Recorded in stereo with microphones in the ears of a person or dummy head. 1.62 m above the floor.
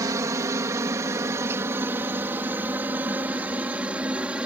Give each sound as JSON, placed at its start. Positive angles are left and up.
{"t": 0.0, "sound": "a helicopter", "side_deg": -20}